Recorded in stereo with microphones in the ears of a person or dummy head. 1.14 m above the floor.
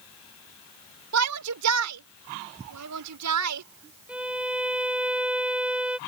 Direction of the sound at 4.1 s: 5° right (ahead or behind).